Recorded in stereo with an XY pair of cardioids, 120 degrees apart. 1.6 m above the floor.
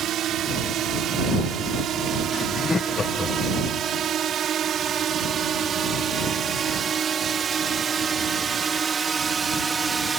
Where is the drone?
60° right; by 10.2 s 30° right.